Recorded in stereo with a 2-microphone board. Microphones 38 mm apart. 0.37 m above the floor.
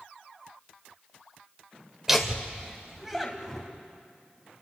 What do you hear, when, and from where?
2.1 s laughter: 10° right (ahead or behind), 1.4 m